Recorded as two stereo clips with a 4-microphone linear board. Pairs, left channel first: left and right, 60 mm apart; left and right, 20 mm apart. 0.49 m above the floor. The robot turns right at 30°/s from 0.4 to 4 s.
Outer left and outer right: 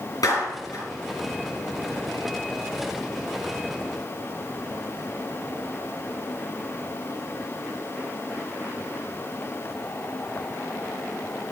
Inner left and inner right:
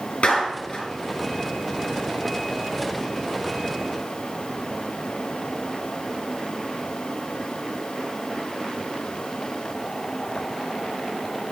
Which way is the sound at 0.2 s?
75° left (ahead or behind).